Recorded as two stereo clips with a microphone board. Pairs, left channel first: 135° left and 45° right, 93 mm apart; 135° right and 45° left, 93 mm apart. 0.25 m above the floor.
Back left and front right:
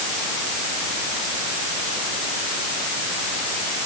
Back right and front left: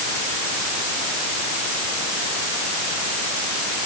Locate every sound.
Only background noise.